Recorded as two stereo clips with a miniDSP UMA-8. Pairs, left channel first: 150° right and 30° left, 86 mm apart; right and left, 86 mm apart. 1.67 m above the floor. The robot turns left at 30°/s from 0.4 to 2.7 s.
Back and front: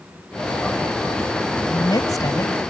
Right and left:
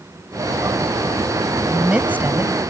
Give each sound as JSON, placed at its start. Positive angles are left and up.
{"t": 1.7, "sound": "a woman speaking", "azimuth_deg": 175}